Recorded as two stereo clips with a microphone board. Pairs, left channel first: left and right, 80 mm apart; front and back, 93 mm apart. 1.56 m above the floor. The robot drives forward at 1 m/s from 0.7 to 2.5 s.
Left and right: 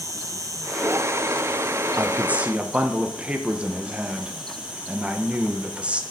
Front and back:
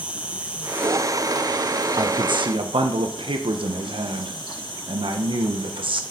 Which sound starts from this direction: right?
An insect, at 0.0 s.